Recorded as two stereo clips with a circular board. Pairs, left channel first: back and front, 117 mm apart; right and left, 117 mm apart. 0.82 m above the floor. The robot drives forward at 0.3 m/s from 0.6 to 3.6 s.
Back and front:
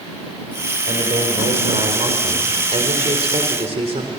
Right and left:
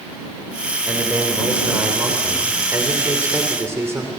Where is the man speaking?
20° left, 3.5 m; by 4.1 s 25° left, 3 m.